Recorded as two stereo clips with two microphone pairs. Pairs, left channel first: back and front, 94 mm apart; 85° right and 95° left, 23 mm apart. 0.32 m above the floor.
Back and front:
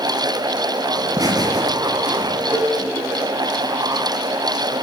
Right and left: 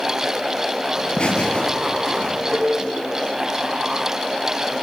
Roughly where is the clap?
I don't hear a clap.